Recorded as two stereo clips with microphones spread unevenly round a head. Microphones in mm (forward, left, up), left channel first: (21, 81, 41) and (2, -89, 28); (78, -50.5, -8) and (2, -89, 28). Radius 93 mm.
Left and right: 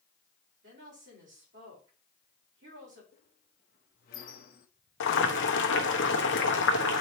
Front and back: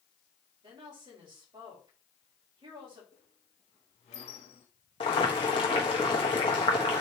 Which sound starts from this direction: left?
Boiling, at 5.0 s.